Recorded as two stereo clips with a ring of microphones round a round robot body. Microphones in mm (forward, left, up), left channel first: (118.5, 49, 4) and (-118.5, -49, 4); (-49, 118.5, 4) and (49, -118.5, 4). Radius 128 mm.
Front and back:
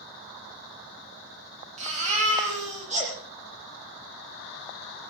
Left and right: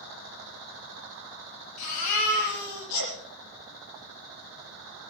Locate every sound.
1.8 s a baby crying: 135° left, 8 m